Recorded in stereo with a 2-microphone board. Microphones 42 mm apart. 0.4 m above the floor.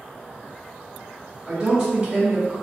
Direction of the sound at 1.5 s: 15° right (ahead or behind).